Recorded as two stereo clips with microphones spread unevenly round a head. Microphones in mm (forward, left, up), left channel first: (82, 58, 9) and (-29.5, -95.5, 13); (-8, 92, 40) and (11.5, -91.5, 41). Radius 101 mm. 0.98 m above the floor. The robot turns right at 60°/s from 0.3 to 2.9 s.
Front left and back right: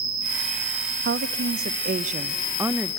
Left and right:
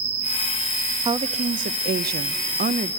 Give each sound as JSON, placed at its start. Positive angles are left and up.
{"t": 0.0, "sound": "an insect", "azimuth_deg": -120, "distance_m": 3.0}
{"t": 1.1, "sound": "a woman speaking", "azimuth_deg": -145, "distance_m": 0.6}